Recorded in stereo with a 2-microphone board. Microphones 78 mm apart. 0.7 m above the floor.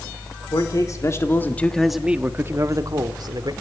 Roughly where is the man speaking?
Left.